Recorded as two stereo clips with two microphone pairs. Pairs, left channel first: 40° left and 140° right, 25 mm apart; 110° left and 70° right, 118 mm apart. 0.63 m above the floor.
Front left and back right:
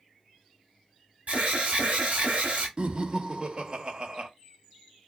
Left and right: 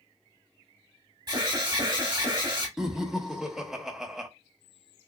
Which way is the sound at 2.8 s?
150° right.